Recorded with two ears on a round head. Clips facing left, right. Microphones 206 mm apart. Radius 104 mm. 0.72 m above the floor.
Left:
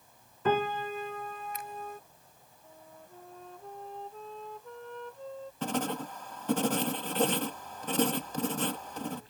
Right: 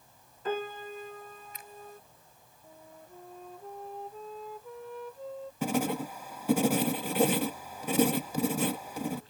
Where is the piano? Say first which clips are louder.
Left 5 dB; 55° left (ahead or behind).